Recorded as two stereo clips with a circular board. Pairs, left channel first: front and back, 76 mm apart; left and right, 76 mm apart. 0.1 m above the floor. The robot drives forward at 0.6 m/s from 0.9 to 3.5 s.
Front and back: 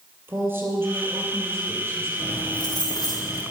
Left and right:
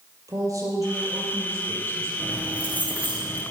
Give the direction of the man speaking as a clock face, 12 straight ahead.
4 o'clock.